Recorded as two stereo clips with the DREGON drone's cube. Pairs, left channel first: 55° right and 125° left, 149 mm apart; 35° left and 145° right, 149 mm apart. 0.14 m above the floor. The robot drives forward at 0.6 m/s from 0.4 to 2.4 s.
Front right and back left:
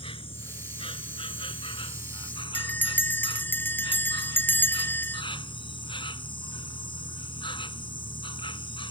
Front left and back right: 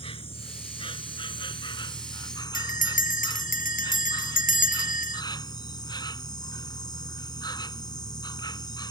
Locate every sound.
0.0 s an insect: 10° right; by 8.9 s 15° right
2.5 s a bell: 20° left